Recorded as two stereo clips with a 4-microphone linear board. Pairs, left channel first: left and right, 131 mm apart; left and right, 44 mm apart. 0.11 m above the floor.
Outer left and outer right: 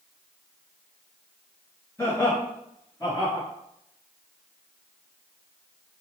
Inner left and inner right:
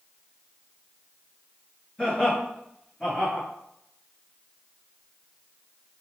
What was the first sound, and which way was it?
Laughter, 20° left (ahead or behind).